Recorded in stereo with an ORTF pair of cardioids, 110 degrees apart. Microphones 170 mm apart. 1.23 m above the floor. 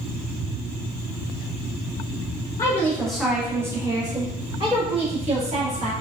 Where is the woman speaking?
20° left, 0.9 m; by 5.9 s 45° right, 1.9 m.